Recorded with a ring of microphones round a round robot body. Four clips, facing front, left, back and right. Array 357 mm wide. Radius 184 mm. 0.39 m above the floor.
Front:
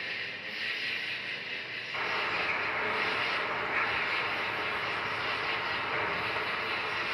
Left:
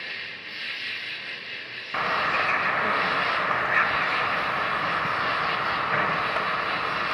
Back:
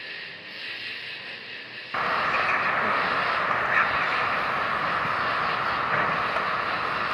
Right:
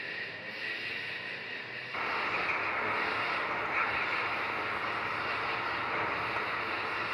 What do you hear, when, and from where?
0.0 s an insect: 95° left, 0.9 m
1.9 s a bird: 135° left, 0.5 m